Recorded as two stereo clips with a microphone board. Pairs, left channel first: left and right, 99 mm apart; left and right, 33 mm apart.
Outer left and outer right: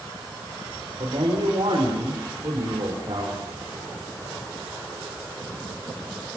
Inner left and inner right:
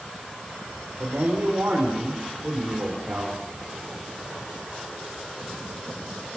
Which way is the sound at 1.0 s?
55° right (ahead or behind).